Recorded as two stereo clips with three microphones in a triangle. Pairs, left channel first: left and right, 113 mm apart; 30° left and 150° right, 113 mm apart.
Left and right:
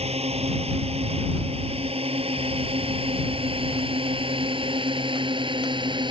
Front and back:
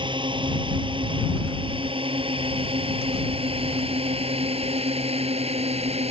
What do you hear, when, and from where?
0.0 s a drone: 110° right; by 6.1 s 135° right